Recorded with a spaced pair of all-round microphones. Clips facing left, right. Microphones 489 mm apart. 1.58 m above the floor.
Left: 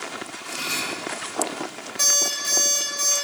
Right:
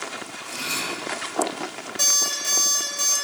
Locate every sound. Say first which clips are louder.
0.4 s cutlery clinking: right 1 dB; 65° right (ahead or behind), 4 m
2.0 s an alarm clock: left 3 dB; 50° right (ahead or behind), 3 m